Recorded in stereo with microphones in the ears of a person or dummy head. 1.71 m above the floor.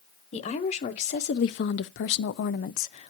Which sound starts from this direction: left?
A woman speaking, at 0.3 s.